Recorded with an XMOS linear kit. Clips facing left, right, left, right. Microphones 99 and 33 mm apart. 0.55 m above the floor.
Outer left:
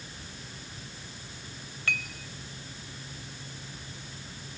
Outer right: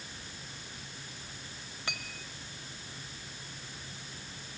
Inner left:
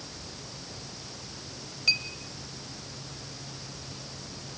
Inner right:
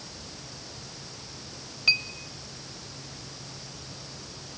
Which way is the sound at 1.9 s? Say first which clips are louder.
Outer left 7 dB, inner right 3 dB; 20° right (ahead or behind).